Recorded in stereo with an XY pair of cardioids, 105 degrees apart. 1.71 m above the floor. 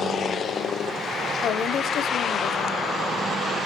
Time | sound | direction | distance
1.4 | a woman speaking | 65° left | 1.2 m